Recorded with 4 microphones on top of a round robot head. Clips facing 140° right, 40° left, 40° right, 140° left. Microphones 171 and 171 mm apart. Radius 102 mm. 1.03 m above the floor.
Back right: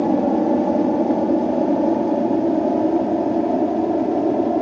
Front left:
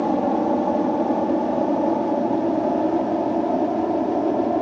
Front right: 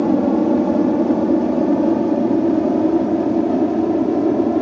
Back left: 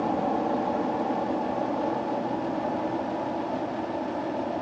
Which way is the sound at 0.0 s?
70° right.